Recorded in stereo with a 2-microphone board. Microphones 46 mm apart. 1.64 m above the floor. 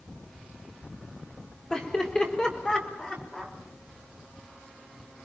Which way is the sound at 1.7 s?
20° left (ahead or behind).